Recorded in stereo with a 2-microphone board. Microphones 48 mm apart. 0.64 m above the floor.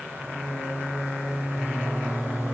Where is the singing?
75° left (ahead or behind), 3.5 m.